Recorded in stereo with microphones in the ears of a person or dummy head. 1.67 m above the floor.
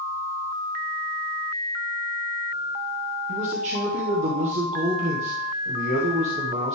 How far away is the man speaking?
About 1.3 m.